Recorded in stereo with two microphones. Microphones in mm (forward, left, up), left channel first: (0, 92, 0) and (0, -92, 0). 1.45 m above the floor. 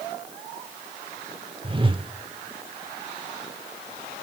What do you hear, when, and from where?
1.6 s a whoosh: 30° right (ahead or behind), 0.6 m